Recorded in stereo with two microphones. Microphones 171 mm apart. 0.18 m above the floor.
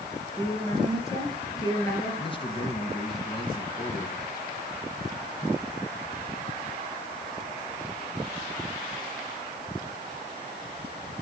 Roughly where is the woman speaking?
Left.